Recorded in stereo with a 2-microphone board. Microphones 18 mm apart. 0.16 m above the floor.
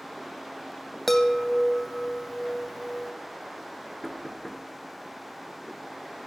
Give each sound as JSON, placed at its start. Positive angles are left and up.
{"t": 1.1, "sound": "a chime", "side_deg": 15, "distance_m": 1.0}
{"t": 4.0, "sound": "knocking", "side_deg": 15, "distance_m": 1.8}